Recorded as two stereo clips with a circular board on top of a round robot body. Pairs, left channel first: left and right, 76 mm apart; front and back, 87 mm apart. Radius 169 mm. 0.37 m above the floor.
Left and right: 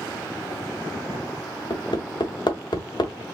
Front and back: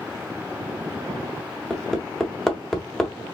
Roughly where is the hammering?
Left.